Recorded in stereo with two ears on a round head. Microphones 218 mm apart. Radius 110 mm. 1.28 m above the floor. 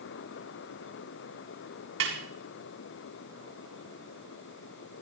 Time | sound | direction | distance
2.0 | a snare drum | 65° right (ahead or behind) | 7 m